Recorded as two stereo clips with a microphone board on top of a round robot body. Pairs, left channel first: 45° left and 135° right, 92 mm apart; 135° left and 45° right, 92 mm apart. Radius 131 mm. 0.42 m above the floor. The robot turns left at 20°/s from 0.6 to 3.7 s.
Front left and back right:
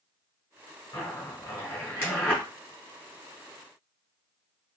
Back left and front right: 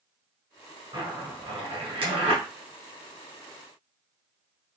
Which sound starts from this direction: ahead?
A zipper, at 0.9 s.